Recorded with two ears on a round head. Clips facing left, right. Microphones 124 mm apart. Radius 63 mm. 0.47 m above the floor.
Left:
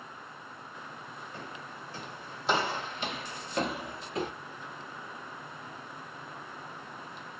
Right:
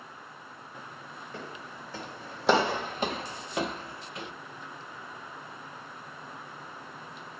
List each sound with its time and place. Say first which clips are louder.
1.3 s footsteps: right 4 dB; 75° right (ahead or behind), 1.4 m; by 4.3 s 40° left (ahead or behind), 0.6 m